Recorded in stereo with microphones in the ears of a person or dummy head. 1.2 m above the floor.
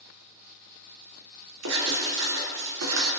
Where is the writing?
85° right, 3.5 m.